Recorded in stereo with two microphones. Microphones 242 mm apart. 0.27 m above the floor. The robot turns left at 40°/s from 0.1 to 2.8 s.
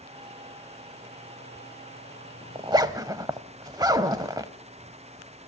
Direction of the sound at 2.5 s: 20° right (ahead or behind).